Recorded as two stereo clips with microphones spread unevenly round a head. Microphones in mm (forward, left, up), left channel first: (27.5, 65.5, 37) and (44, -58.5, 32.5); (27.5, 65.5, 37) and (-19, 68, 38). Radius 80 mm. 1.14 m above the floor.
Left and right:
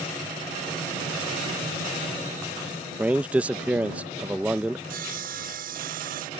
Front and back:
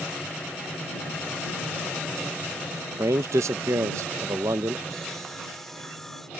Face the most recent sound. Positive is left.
turn(degrees=-90)